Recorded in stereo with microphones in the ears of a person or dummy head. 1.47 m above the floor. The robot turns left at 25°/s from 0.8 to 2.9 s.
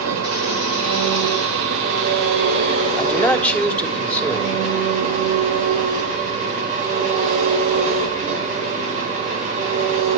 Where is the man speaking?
5° left (ahead or behind), 3 m.